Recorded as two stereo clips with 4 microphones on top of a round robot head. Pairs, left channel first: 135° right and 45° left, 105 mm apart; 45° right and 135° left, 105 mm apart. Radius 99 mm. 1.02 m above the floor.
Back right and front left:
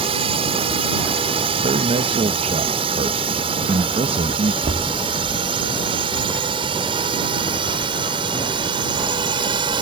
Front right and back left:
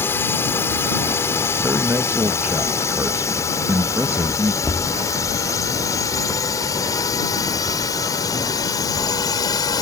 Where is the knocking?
30° left.